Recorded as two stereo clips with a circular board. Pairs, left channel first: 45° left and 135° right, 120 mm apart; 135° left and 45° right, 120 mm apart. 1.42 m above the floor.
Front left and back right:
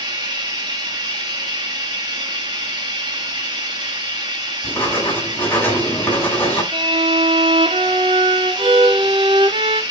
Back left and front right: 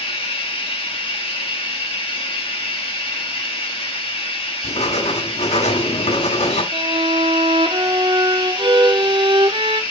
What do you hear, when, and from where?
0.0 s running water: 170° left, 2.5 m
4.6 s writing: 120° left, 5.5 m
6.7 s a violin: 95° right, 1.0 m